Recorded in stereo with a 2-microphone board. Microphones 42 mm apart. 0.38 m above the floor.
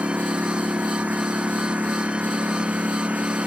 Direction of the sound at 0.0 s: 35° right (ahead or behind).